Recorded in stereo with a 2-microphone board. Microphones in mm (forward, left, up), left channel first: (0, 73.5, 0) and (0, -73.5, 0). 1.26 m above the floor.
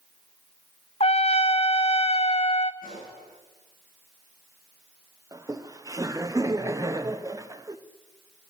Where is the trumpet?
45° left (ahead or behind), 0.6 m.